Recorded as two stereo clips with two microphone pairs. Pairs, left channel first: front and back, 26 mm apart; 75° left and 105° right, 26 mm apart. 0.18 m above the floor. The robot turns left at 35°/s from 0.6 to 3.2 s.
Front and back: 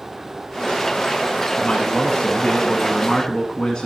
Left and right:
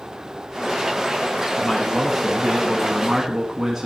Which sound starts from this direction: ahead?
A man speaking, at 1.6 s.